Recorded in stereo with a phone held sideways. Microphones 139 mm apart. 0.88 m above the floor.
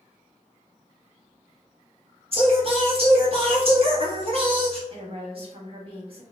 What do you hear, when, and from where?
2.3 s singing: 45° right (ahead or behind), 1.1 m
4.9 s a woman speaking: 40° right (ahead or behind), 1.1 m